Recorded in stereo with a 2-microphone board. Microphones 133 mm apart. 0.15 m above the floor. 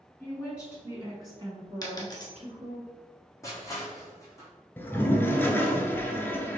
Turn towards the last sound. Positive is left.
turn(degrees=15)  # may be behind; listen again after turning